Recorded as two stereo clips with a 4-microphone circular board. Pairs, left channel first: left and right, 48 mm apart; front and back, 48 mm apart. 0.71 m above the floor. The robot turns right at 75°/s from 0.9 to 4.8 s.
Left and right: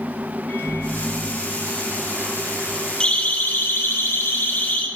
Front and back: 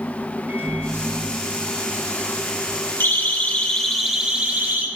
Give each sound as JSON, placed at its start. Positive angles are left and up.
{"t": 0.5, "sound": "a microwave", "azimuth_deg": 140, "distance_m": 7.5}
{"t": 3.0, "sound": "a siren", "azimuth_deg": 25, "distance_m": 3.0}